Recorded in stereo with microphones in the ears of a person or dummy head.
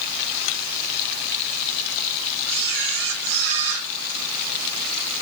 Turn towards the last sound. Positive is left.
turn(degrees=-60)  # may be behind; listen again after turning